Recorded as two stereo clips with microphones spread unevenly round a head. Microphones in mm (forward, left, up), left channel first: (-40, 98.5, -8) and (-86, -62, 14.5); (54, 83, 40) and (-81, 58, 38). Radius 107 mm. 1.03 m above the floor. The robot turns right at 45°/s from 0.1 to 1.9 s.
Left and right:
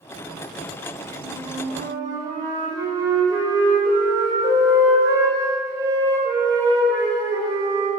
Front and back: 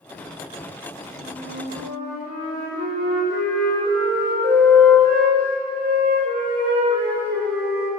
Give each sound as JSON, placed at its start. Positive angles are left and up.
{"t": 1.2, "sound": "a flute", "azimuth_deg": 150, "distance_m": 4.5}